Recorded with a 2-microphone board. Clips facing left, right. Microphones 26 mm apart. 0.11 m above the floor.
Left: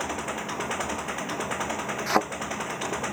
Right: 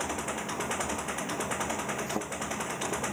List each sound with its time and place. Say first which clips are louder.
0.0 s an engine running: left 2 dB; 15° left (ahead or behind)
2.1 s a thud: left 10 dB; 70° left (ahead or behind)